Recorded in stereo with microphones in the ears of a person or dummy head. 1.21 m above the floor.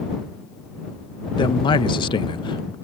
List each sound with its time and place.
1.4 s a man speaking: 30° left (ahead or behind)